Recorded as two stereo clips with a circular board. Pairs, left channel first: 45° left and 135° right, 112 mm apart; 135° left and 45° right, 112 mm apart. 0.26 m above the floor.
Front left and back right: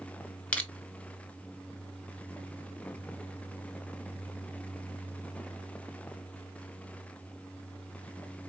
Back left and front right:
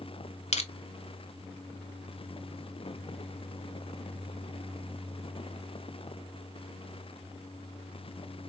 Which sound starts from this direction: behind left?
Crushing, at 0.5 s.